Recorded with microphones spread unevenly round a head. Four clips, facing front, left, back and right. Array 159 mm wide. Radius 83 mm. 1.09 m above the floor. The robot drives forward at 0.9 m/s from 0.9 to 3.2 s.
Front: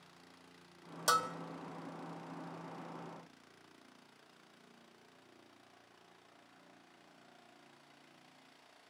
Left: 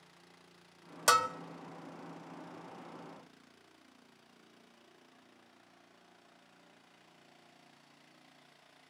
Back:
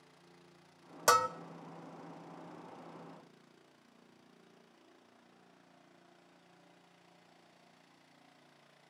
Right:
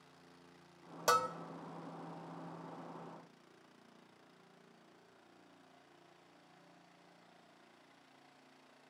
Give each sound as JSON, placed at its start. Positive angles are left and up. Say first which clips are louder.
{"t": 1.1, "sound": "a bell", "louder": "left 4 dB, back 5 dB", "azimuth_deg": -160, "distance_m": 0.6}